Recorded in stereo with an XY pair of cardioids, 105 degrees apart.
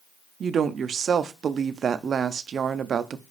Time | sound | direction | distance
0.4 | a woman speaking | 50° right | 0.5 m